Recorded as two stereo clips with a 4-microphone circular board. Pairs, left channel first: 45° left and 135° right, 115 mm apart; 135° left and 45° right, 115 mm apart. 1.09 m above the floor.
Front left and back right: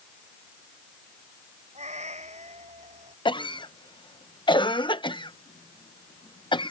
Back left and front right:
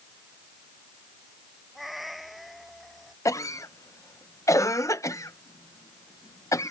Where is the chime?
No chime in this recording.